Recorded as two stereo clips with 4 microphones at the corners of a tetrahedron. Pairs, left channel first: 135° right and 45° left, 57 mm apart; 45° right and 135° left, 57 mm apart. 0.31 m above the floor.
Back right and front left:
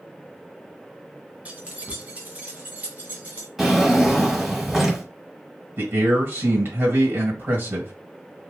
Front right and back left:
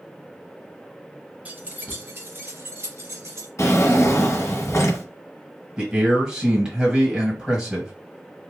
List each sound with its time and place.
1.4 s keys jangling: 90° left, 0.7 m; by 3.5 s 105° left, 1.7 m
3.6 s a drawer: 35° right, 1.2 m
5.8 s a man speaking: 65° left, 1.7 m